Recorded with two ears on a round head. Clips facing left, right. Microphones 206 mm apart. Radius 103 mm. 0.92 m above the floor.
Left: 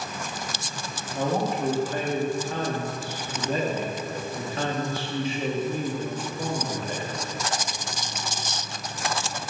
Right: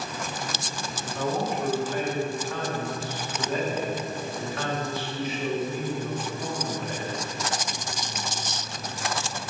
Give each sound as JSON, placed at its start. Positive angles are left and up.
{"t": 1.1, "sound": "a man speaking", "side_deg": 30, "distance_m": 1.3}